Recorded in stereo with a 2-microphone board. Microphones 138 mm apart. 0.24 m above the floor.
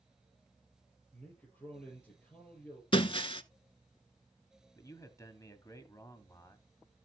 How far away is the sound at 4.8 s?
About 1.6 m.